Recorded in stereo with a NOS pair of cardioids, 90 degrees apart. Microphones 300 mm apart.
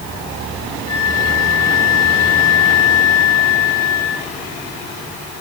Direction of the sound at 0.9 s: 70° left.